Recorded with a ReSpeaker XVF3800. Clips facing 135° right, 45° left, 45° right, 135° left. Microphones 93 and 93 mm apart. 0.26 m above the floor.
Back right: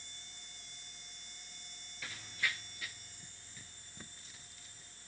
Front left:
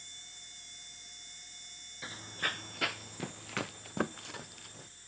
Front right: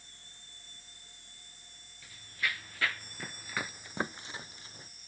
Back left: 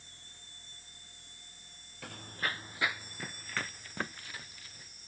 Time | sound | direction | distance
2.0 | running footsteps | 110° left | ?